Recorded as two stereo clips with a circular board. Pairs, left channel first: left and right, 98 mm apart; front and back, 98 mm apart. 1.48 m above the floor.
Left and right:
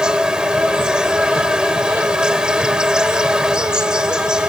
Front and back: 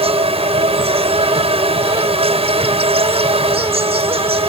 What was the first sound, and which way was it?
An insect, 175° right.